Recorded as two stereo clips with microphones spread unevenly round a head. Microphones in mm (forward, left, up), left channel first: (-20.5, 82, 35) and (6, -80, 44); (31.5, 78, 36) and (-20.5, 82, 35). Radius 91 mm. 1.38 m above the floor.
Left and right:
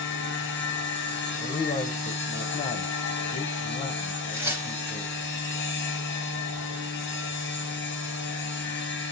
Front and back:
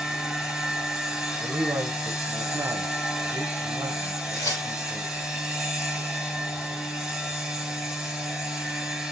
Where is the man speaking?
160° left, 0.7 m.